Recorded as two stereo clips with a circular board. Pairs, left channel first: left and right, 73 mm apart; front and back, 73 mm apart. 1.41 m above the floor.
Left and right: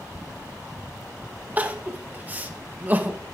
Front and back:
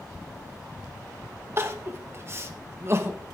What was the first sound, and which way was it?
Crying, 145° right.